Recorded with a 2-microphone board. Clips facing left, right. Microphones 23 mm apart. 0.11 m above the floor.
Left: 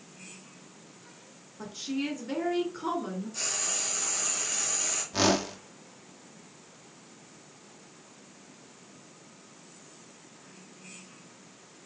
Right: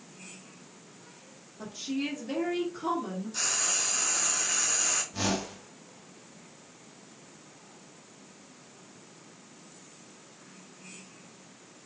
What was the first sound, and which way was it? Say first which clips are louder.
A woman speaking: even; 15° left (ahead or behind).